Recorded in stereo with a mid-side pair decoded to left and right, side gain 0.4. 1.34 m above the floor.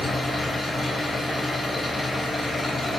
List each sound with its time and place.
0.0 s an engine running: 40° left, 3.5 m